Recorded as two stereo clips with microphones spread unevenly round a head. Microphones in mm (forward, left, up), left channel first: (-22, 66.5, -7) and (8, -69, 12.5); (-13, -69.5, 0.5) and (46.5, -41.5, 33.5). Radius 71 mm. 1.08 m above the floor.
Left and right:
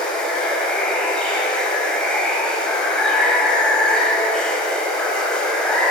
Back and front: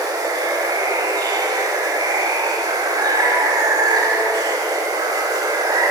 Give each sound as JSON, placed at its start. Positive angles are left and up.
{"t": 0.0, "sound": "running water", "azimuth_deg": 15, "distance_m": 5.0}